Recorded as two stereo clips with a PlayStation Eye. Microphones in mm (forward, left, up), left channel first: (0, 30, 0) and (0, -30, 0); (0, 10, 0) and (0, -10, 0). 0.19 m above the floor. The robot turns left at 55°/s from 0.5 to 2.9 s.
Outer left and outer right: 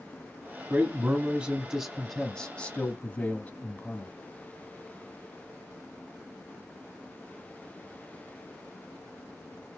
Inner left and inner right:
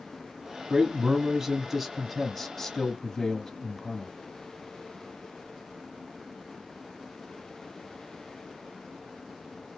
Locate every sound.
0.7 s a man speaking: 115° right, 1.1 m; by 4.1 s 125° left, 1.1 m